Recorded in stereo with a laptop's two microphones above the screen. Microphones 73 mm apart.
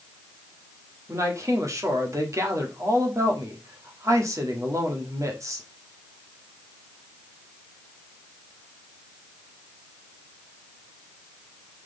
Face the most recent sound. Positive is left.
turn(degrees=-45)  # may be behind; listen again after turning